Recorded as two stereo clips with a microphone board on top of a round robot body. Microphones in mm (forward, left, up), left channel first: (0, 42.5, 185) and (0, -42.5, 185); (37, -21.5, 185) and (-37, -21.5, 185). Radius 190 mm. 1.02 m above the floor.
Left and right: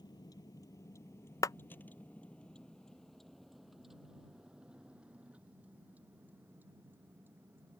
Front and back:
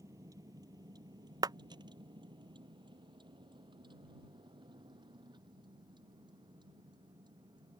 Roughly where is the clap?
Behind left.